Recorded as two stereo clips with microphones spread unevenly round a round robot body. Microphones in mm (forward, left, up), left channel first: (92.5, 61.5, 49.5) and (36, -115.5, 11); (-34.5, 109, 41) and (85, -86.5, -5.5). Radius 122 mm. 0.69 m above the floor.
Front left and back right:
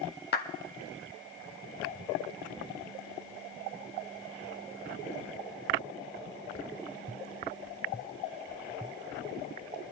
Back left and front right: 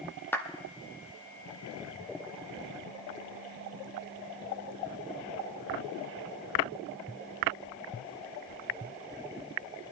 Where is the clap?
35° left, 1.2 m.